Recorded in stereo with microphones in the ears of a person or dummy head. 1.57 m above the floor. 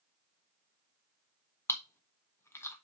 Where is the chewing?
10° left (ahead or behind), 1.2 m.